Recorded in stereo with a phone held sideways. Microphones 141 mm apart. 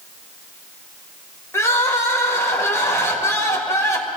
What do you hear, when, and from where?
1.5 s crying: 20° left (ahead or behind), 1.7 m